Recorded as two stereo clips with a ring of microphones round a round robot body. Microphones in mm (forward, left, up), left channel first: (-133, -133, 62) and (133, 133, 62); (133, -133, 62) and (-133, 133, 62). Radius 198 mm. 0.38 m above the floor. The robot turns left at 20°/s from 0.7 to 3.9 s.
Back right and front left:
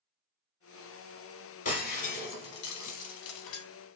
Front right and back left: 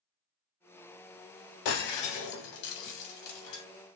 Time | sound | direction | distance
1.6 | breaking glass | 65° right | 0.7 m